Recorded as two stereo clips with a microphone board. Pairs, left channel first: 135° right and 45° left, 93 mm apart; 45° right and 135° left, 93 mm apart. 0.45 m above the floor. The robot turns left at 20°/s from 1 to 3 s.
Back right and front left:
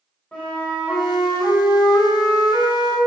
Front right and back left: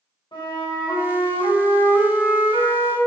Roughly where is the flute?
Ahead right.